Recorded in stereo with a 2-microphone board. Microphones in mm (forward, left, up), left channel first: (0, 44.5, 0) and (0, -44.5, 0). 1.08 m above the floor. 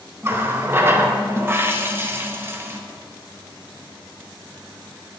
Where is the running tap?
25° right (ahead or behind), 0.5 m.